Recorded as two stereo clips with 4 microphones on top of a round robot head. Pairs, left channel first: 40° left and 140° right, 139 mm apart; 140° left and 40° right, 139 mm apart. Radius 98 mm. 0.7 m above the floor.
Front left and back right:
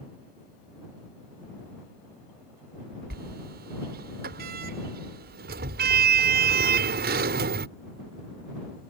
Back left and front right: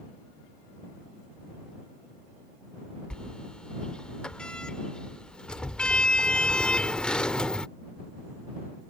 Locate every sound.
3.1 s a sliding door: 135° right